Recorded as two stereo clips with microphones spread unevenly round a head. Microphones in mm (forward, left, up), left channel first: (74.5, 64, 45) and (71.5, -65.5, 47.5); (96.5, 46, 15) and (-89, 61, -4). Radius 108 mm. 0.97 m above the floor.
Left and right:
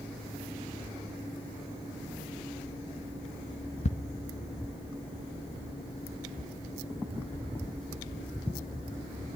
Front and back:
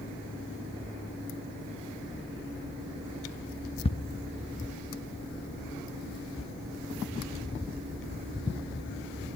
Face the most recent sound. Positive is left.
turn(degrees=55)